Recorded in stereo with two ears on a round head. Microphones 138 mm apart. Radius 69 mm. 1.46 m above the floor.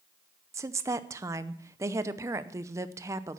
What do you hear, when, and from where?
0.5 s a woman speaking: 20° right (ahead or behind), 0.6 m